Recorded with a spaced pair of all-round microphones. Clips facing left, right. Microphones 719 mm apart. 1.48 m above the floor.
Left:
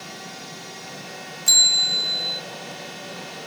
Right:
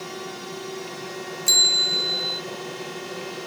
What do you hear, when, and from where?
0.0 s a drone: 75° right (ahead or behind)
1.5 s a bell: 45° left (ahead or behind)